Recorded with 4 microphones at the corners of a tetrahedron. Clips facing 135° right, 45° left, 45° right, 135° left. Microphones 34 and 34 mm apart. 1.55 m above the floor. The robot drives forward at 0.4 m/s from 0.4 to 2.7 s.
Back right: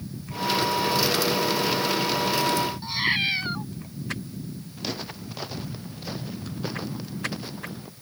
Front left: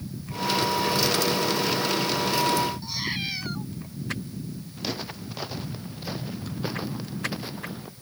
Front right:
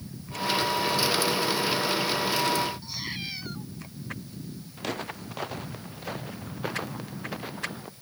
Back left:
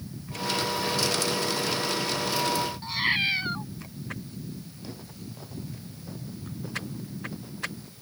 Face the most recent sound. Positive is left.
turn(degrees=-30)